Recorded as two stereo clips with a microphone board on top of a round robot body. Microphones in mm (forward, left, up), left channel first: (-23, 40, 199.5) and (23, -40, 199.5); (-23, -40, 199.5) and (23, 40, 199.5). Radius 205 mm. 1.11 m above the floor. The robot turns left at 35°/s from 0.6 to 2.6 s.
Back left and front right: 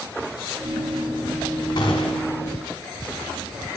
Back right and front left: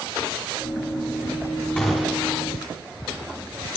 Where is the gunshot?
165° left, 1.4 m; by 2.4 s 145° left, 1.4 m.